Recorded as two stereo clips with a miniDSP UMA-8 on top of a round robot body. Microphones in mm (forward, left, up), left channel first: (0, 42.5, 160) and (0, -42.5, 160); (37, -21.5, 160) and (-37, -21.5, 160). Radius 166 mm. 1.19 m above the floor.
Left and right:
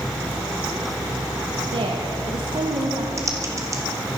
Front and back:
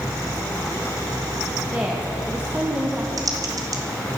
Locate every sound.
1.7 s a woman speaking: 110° right, 1.6 m
3.2 s typing on a keyboard: 145° right, 1.7 m